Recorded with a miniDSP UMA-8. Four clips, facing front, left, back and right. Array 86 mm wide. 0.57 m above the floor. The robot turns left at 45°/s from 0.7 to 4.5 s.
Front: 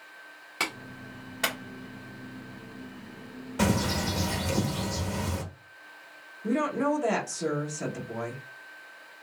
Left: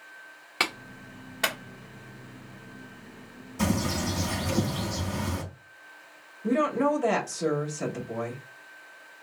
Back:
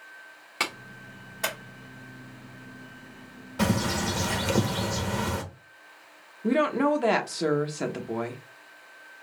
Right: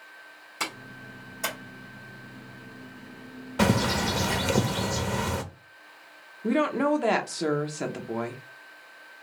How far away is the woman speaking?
About 1.0 m.